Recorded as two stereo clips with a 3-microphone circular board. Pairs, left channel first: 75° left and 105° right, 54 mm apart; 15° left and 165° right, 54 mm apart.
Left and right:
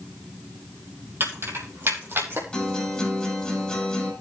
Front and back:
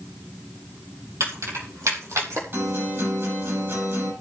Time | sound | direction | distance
1.2 | keys jangling | 145° right | 4 m
2.5 | a guitar | 155° left | 8 m